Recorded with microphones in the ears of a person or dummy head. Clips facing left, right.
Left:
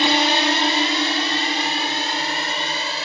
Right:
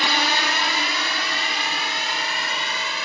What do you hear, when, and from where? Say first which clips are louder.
0.0 s a drone: left 6 dB; 25° left (ahead or behind); by 3.1 s 30° left (ahead or behind)